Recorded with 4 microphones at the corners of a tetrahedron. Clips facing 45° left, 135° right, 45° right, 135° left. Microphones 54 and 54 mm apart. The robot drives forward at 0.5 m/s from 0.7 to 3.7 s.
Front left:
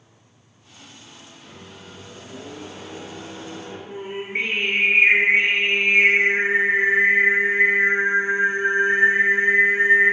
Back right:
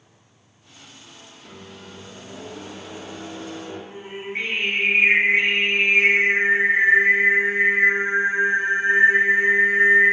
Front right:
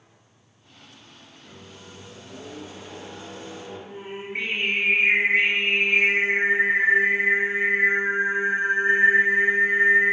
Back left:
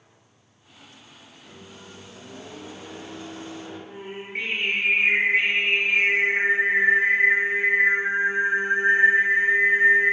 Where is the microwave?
140° right, 1.0 m; by 3.8 s 160° right, 2.0 m.